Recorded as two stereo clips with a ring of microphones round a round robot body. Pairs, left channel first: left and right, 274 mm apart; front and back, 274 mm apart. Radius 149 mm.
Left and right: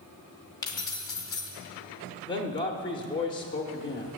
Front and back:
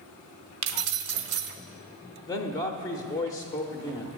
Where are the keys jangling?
165° left, 0.6 m.